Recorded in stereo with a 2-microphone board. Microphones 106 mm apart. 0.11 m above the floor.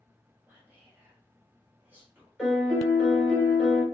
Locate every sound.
0.5 s whispering: 20° right (ahead or behind), 1.1 m
2.4 s a piano: 10° left (ahead or behind), 1.1 m